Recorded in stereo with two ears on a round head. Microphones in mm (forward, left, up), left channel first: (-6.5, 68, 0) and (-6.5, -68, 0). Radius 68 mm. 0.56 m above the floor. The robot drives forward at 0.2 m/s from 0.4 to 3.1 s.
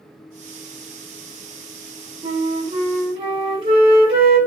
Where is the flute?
35° right (ahead or behind), 1.2 m.